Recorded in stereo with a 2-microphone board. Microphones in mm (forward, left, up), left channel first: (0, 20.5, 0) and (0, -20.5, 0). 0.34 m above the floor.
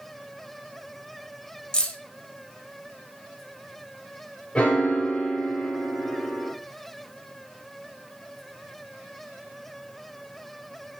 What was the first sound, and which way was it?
Keys jangling, 20° left (ahead or behind).